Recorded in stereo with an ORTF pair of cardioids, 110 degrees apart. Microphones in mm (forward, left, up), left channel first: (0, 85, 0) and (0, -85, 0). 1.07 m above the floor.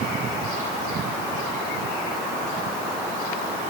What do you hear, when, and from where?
Only background noise.